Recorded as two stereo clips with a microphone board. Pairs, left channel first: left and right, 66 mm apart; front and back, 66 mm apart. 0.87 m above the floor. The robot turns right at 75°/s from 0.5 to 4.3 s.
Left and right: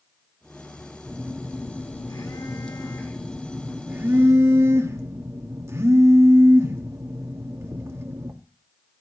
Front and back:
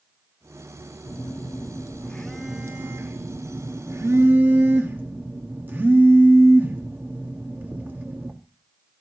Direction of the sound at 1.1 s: 10° right.